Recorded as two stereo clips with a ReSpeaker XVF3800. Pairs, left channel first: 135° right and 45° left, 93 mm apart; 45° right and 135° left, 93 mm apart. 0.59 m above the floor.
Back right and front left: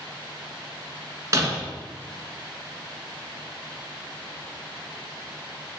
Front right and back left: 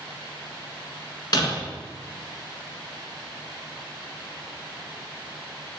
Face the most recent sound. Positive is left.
turn(degrees=-10)